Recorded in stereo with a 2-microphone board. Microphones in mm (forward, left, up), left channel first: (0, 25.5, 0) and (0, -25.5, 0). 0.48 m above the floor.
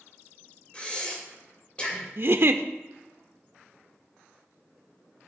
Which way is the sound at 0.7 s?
25° left (ahead or behind).